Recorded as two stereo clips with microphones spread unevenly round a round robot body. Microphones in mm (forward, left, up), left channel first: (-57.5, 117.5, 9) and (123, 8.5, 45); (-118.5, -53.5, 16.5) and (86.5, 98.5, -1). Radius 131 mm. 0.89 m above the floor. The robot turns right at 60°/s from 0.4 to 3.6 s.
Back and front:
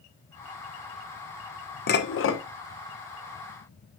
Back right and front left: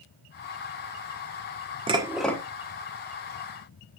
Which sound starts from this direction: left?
Dishes clattering, at 1.9 s.